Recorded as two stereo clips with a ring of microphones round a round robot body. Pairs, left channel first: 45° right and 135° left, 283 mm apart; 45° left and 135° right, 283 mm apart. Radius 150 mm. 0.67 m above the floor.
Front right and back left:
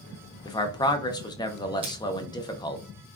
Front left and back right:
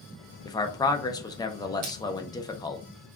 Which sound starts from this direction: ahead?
A man speaking, at 0.5 s.